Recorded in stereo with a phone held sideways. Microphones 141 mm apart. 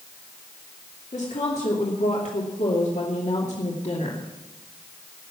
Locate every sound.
1.1 s a woman speaking: 60° left (ahead or behind), 2.5 m